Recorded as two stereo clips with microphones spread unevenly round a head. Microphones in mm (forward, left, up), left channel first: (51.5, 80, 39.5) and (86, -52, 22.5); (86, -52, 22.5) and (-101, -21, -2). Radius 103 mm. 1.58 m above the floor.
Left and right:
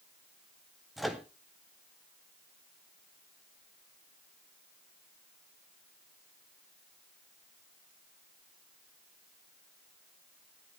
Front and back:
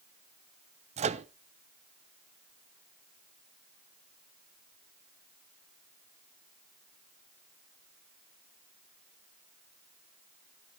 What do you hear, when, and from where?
1.0 s a microwave: straight behind, 0.6 m